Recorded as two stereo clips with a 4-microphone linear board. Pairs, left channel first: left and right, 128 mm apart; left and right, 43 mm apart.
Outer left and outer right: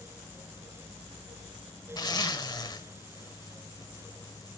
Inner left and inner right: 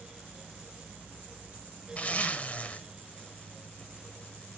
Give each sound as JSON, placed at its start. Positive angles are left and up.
{"t": 2.0, "sound": "a zipper", "side_deg": 35, "distance_m": 1.1}